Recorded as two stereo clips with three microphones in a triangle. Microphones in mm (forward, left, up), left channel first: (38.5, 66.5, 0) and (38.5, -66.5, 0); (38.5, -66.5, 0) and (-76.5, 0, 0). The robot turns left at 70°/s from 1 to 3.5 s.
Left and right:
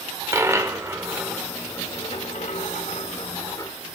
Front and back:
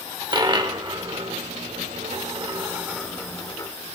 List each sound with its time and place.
0.3 s a dropped coin: 155° right, 1.0 m; by 3.7 s 30° left, 1.0 m